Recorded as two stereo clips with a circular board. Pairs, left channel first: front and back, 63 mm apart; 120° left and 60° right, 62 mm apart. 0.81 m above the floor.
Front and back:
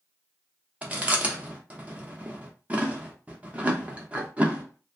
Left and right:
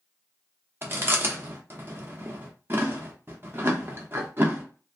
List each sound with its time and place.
0.8 s chewing: 110° right, 0.7 m